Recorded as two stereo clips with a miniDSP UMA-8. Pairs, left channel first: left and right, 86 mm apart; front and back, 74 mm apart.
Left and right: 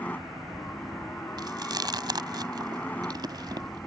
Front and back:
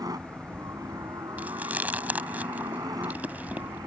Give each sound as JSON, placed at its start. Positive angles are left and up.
{"t": 0.0, "sound": "a helicopter", "azimuth_deg": 160}
{"t": 1.4, "sound": "chewing", "azimuth_deg": -115}